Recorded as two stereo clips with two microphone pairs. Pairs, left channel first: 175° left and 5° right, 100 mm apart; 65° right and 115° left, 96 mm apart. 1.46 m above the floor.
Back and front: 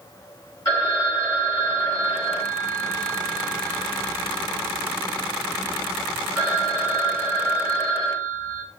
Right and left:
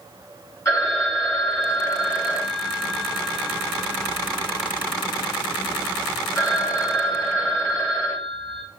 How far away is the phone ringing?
About 2.5 m.